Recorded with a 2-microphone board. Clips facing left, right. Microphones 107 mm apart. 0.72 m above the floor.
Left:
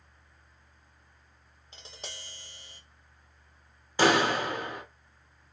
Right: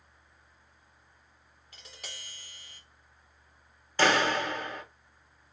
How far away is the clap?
About 1.3 m.